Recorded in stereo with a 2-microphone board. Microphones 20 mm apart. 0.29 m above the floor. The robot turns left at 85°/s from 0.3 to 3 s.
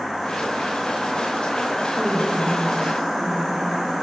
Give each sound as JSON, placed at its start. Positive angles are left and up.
{"t": 1.9, "sound": "a woman speaking", "azimuth_deg": -40, "distance_m": 9.5}